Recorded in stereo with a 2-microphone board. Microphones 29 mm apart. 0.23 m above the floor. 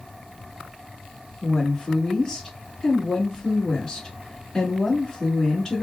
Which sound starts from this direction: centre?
A woman speaking, at 1.4 s.